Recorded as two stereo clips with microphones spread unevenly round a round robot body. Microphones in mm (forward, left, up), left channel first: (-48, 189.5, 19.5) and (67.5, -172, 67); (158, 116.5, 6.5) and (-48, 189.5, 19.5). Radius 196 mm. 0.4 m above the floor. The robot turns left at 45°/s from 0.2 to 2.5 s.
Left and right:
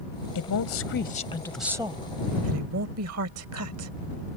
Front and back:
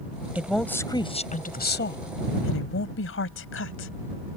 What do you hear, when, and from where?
0.3 s a woman speaking: 75° left; by 3.9 s 20° right